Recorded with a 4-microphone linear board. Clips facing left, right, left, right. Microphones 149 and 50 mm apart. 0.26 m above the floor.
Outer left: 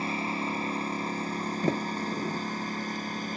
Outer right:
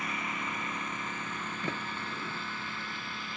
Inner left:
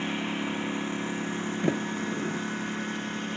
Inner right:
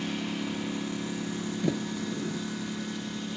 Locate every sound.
0.0 s a lawn mower: 30° left (ahead or behind); by 3.4 s 40° left (ahead or behind)
1.6 s a sliding door: 40° left (ahead or behind)